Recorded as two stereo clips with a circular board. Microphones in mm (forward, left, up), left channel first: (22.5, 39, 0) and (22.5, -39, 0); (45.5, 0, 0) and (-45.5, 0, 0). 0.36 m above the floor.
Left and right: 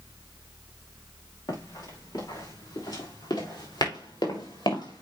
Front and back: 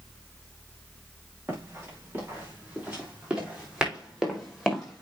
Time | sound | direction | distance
1.5 | running footsteps | 115° left | 6 m